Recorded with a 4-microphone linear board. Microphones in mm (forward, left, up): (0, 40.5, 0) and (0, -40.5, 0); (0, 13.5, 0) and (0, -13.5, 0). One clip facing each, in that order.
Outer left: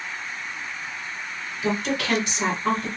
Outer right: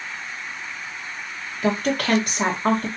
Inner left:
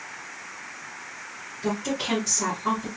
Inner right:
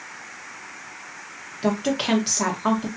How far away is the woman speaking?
About 1.5 m.